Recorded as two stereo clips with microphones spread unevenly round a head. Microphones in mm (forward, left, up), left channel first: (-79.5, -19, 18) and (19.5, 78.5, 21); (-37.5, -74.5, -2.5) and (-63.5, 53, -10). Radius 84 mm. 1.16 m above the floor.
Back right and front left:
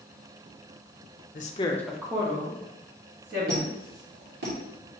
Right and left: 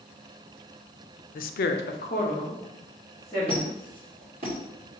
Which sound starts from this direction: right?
A woman speaking, at 1.4 s.